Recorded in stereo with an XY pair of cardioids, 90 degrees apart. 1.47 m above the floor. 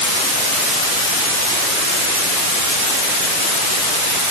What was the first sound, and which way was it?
Only background noise.